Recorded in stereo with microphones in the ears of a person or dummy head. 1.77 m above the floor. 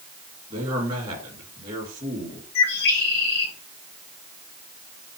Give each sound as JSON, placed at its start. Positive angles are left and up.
{"t": 0.5, "sound": "a man speaking", "side_deg": -25, "distance_m": 3.0}
{"t": 2.5, "sound": "a bird", "side_deg": 60, "distance_m": 2.0}